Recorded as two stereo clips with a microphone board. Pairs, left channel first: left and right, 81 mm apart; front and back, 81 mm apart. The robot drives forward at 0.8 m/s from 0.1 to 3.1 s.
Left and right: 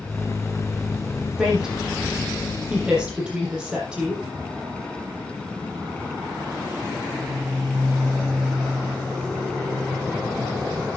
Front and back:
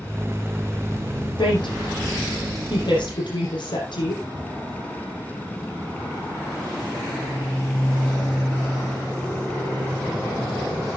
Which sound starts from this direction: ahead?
A woman speaking, at 1.4 s.